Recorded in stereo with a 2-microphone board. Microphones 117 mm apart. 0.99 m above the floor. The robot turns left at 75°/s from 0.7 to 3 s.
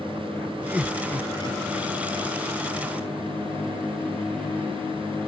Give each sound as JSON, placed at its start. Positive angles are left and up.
{"t": 0.7, "sound": "laughter", "side_deg": -15}